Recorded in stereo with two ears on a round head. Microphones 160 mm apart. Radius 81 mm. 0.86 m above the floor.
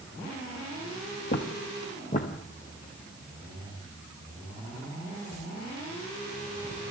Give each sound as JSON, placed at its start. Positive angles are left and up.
{"t": 1.3, "sound": "footsteps", "side_deg": 55, "distance_m": 1.5}